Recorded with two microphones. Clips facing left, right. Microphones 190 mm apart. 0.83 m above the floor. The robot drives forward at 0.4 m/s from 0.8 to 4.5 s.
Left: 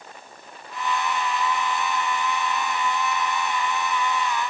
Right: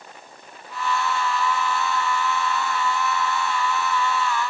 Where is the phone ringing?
No phone ringing in this recording.